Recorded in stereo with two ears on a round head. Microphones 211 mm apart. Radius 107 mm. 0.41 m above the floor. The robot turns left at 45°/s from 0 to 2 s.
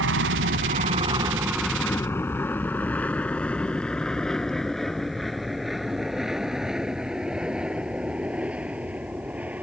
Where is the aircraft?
55° right (ahead or behind); by 9.6 s 5° right (ahead or behind).